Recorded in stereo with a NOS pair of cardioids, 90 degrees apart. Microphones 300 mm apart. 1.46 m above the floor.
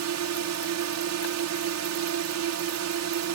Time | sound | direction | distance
0.0 | a drone | 65° right | ?